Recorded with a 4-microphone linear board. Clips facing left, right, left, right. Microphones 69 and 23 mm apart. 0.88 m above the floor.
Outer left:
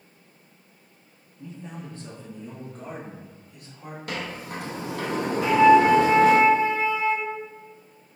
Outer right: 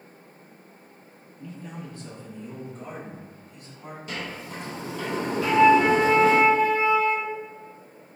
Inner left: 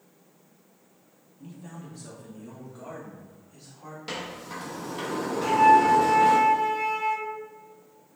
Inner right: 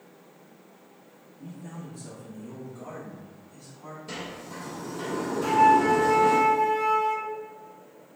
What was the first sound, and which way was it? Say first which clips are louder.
A man speaking: even, inner right 2 dB; 20° left (ahead or behind).